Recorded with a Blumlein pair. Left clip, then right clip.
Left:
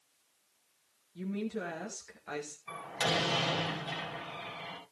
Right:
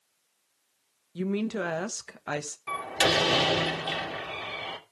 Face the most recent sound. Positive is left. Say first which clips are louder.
# right 8 dB
turn(degrees=-40)